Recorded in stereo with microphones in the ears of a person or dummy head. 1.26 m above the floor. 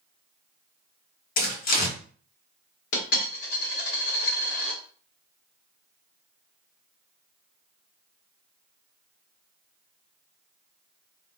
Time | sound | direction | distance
1.4 | tearing paper | 55° left (ahead or behind) | 1.2 m
2.9 | a dropped coin | 60° left (ahead or behind) | 1.1 m